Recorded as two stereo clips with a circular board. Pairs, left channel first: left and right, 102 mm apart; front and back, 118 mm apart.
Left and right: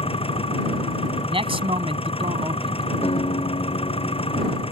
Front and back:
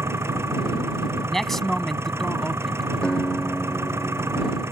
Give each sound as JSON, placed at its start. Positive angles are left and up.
{"t": 0.0, "sound": "an engine running", "azimuth_deg": 110}
{"t": 1.3, "sound": "a man speaking", "azimuth_deg": -85}
{"t": 3.0, "sound": "a guitar", "azimuth_deg": 80}